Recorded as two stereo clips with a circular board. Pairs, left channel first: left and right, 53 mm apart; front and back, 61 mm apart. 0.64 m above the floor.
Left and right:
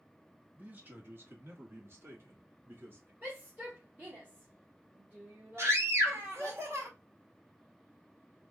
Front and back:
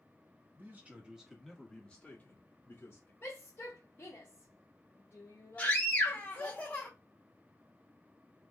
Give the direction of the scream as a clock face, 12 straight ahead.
2 o'clock.